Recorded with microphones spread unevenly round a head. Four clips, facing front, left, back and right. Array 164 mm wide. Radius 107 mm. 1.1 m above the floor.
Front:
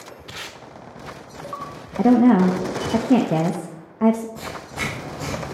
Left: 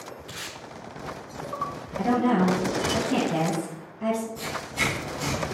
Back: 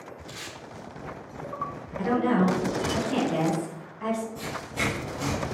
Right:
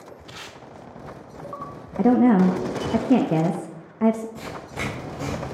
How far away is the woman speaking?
About 0.6 m.